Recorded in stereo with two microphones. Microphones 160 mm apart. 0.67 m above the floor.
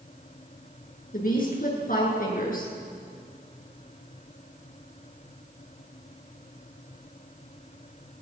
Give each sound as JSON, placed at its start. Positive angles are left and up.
{"t": 1.1, "sound": "a woman speaking", "side_deg": 55, "distance_m": 9.5}